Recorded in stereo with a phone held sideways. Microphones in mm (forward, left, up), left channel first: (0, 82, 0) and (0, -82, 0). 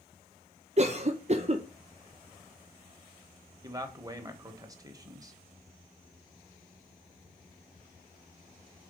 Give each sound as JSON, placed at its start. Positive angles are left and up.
{"t": 0.8, "sound": "a cough", "side_deg": -45, "distance_m": 0.5}
{"t": 3.6, "sound": "a man speaking", "side_deg": -20, "distance_m": 1.2}